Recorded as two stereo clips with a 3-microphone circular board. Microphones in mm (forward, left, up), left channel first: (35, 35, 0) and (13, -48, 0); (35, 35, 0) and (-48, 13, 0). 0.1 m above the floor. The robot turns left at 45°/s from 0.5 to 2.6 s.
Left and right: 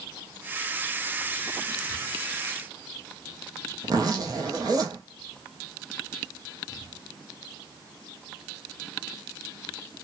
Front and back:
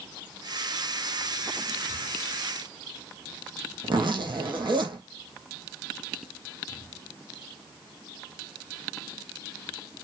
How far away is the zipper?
About 0.7 m.